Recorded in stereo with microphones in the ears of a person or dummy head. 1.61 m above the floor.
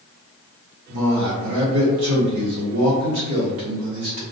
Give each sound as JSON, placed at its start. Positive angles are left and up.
{"t": 0.9, "sound": "a man speaking", "side_deg": -70, "distance_m": 1.0}